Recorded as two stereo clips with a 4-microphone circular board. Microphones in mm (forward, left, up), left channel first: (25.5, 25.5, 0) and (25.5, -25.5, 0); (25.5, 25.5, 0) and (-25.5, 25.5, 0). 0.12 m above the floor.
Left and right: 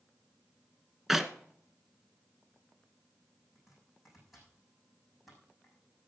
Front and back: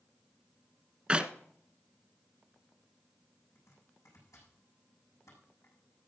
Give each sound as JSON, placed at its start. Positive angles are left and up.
{"t": 1.1, "sound": "a clap", "azimuth_deg": -160, "distance_m": 0.8}
{"t": 3.5, "sound": "chopping", "azimuth_deg": -5, "distance_m": 5.5}